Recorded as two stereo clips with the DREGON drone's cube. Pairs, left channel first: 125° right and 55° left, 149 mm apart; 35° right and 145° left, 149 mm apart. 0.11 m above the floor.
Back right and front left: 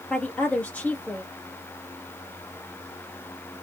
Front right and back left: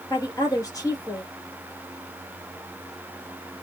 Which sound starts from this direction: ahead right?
A woman speaking, at 0.1 s.